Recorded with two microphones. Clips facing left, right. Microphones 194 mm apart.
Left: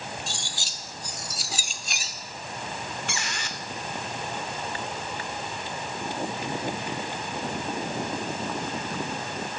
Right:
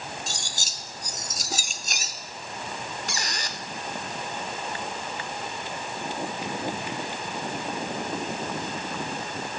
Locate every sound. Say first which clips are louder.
0.3 s cutlery clinking: even; 45° right (ahead or behind), 0.6 m
3.1 s a squeak: even; 40° right (ahead or behind), 0.6 m